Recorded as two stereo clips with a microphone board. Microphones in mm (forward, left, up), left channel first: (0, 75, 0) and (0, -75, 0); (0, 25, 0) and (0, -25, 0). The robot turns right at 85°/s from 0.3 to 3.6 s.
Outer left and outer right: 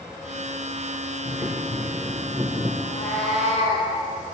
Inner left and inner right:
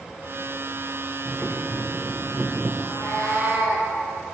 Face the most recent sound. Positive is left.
turn(degrees=-155)